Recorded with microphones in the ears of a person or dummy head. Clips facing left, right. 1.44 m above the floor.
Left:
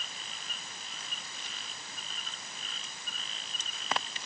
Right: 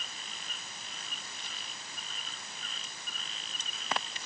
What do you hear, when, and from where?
Only background noise.